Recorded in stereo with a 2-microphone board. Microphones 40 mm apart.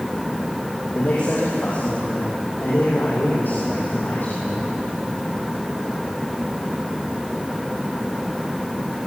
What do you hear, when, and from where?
0.9 s a man speaking: 65° left (ahead or behind), 6 m; by 4.7 s 50° left (ahead or behind), 7.5 m